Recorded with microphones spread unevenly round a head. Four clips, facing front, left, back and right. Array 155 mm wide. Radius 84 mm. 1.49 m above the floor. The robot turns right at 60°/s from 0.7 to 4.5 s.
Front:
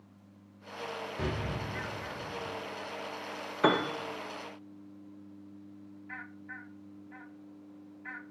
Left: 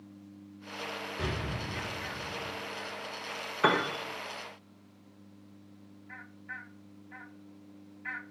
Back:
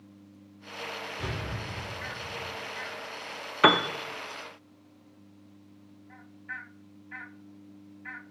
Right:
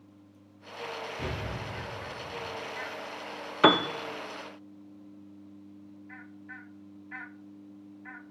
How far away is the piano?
About 0.7 m.